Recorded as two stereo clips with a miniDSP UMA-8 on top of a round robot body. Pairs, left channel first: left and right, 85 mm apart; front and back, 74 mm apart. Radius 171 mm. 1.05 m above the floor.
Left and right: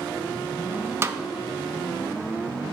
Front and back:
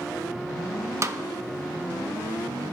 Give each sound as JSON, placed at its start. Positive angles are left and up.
{"t": 1.0, "sound": "a snare drum", "azimuth_deg": -140, "distance_m": 0.8}